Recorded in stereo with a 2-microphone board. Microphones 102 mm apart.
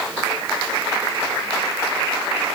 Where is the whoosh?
I don't hear a whoosh.